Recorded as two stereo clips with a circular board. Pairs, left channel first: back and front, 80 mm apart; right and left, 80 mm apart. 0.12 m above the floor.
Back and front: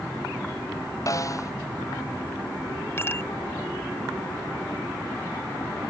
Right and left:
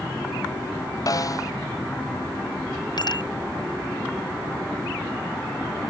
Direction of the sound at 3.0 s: 120° right.